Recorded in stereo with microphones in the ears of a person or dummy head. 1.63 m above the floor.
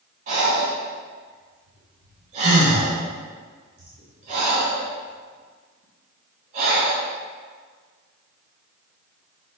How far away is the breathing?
About 1.7 m.